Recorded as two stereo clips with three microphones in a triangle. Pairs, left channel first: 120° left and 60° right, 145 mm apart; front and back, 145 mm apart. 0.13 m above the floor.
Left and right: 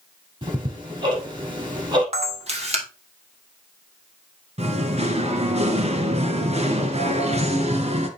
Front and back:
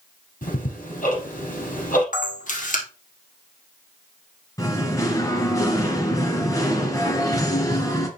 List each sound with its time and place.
0.4 s ticking: 10° right, 5 m
2.1 s a camera shutter: 15° right, 2.5 m
4.6 s singing: 60° right, 1.8 m